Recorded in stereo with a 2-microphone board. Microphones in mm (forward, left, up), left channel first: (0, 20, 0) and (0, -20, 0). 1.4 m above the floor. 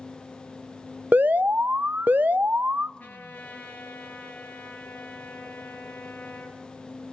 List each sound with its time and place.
1.1 s an alarm: 50° right (ahead or behind), 0.5 m
3.0 s a trumpet: 45° left (ahead or behind), 4 m